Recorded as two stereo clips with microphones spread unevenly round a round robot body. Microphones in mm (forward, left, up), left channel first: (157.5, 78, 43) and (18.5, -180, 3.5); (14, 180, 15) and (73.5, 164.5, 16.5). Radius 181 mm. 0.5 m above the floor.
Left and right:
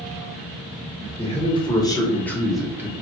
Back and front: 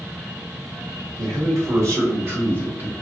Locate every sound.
1.2 s a man speaking: 10° right, 1.4 m; by 2.9 s 60° right, 0.9 m